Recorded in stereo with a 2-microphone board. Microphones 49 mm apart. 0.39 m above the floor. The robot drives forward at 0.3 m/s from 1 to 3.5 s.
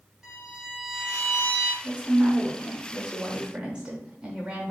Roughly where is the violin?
Centre.